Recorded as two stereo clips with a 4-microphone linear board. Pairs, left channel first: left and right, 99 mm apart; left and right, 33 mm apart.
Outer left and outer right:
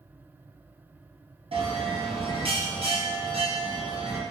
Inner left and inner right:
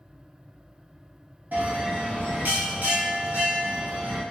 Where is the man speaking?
No man speaking in this recording.